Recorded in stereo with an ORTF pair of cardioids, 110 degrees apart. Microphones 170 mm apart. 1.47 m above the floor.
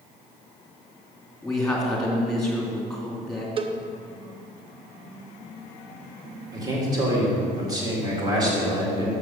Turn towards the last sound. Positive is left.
turn(degrees=-25)